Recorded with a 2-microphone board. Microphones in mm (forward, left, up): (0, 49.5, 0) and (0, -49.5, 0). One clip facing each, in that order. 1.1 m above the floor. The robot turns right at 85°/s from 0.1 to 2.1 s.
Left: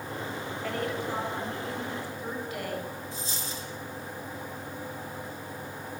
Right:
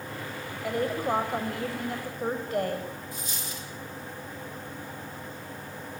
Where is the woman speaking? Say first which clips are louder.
Right 5 dB; 165° right, 6.5 m; by 2.9 s 45° right, 6.5 m.